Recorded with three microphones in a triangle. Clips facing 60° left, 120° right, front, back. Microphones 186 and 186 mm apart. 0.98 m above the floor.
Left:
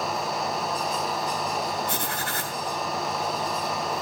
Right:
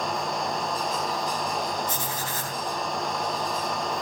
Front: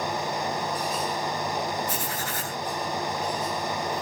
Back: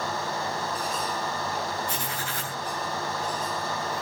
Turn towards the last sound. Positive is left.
turn(degrees=85)